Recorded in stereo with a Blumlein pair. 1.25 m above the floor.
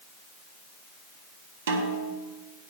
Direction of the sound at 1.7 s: 60° right.